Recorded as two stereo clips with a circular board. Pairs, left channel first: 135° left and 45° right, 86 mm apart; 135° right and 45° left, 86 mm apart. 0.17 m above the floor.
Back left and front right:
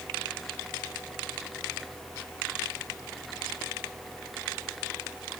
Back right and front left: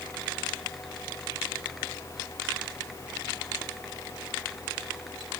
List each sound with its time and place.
Only background noise.